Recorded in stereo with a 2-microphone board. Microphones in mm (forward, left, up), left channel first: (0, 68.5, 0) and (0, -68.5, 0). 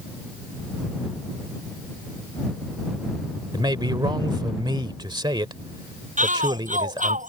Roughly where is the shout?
Right.